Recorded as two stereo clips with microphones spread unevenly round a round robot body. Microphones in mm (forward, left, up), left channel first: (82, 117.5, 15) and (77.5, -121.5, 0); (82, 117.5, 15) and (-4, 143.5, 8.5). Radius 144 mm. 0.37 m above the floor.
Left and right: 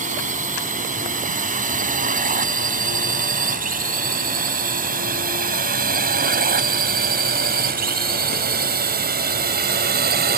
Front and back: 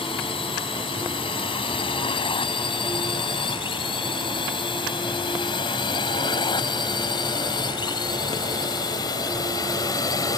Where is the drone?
35° right; by 10.4 s 60° right.